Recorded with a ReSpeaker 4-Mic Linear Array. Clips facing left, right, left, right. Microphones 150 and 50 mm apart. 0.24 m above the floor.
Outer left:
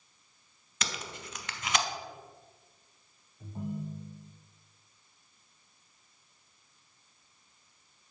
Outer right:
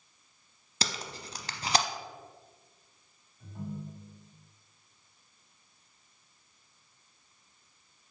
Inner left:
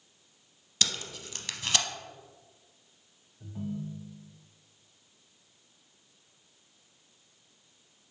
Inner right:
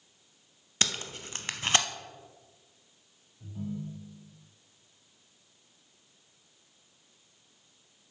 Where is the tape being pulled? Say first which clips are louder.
Outer right 2 dB, inner right 1 dB; 35° right (ahead or behind), 0.6 m.